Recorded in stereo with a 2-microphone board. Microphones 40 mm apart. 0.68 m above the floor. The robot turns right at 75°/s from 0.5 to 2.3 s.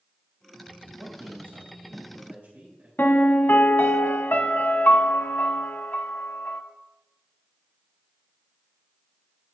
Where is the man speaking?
150° right, 3.5 m; by 2.9 s 50° right, 3.5 m.